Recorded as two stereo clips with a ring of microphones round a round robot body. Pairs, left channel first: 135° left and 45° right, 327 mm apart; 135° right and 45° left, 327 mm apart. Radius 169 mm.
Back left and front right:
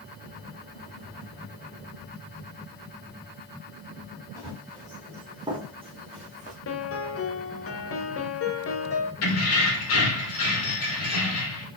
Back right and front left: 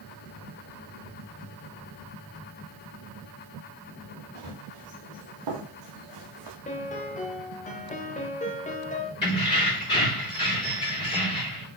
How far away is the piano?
About 1.0 m.